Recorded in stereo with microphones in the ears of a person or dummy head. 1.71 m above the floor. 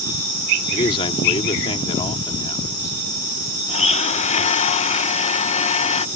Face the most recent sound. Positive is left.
turn(degrees=35)  # may be behind; listen again after turning